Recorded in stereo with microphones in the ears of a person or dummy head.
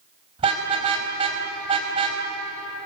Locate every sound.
0.4 s a car horn: 35° right (ahead or behind), 4.5 m